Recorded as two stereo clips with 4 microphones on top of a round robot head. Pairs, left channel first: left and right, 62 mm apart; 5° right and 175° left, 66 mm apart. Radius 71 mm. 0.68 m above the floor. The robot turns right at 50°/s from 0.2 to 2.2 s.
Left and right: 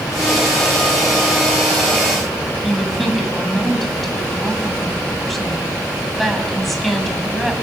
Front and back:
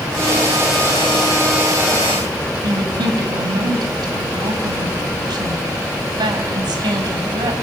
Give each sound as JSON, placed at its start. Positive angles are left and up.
{"t": 2.6, "sound": "a woman speaking", "azimuth_deg": 180, "distance_m": 5.0}